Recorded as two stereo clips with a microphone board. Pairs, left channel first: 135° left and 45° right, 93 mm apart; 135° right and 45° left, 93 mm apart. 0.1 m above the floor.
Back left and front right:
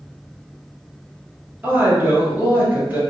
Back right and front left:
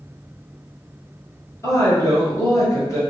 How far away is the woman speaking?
About 1.5 m.